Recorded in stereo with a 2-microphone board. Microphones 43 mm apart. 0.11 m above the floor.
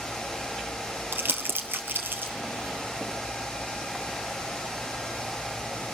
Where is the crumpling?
60° right (ahead or behind), 1.5 m.